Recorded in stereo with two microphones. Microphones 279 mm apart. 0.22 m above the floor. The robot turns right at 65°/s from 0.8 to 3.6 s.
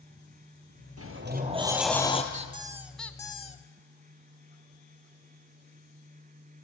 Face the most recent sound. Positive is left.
turn(degrees=40)